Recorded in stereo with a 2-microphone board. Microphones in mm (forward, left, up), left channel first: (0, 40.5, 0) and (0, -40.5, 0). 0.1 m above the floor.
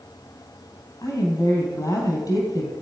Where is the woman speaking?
55° left (ahead or behind), 3 m.